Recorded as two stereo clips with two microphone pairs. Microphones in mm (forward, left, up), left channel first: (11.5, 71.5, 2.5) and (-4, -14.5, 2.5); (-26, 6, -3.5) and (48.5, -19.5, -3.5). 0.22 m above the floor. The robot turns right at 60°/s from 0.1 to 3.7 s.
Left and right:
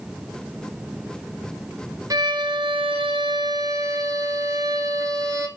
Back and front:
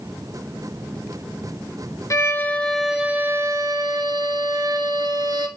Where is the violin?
150° right, 0.9 m; by 5.5 s 55° right, 0.9 m.